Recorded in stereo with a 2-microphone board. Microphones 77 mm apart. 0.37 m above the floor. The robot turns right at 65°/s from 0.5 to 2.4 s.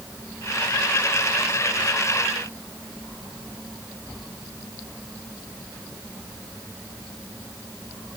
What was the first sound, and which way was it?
Only background noise.